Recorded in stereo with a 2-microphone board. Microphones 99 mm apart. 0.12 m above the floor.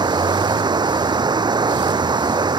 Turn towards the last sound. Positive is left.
turn(degrees=-50)  # may be behind; listen again after turning